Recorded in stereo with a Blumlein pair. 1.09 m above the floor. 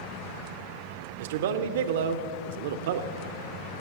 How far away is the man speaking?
About 0.5 m.